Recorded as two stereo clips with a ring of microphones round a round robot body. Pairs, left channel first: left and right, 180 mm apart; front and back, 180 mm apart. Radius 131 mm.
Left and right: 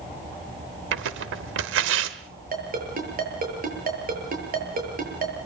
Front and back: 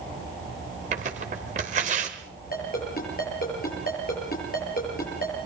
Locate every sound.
0.9 s tearing paper: 115° right, 0.9 m
2.5 s a ringtone: 55° right, 7.5 m